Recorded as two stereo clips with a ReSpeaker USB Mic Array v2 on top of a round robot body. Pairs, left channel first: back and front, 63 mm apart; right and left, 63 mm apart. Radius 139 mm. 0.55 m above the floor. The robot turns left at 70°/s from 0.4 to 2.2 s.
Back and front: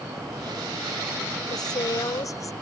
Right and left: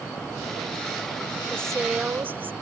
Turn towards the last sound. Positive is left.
turn(degrees=150)